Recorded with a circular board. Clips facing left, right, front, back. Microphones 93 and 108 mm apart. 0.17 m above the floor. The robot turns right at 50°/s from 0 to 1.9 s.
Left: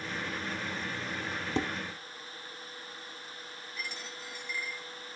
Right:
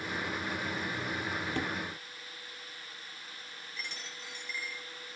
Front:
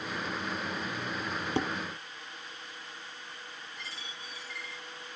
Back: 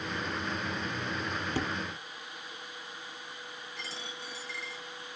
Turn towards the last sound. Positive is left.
turn(degrees=175)